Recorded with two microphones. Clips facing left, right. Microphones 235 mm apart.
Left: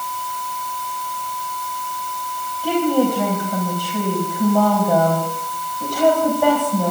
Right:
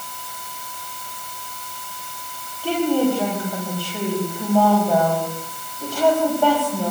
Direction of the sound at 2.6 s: 15° left (ahead or behind).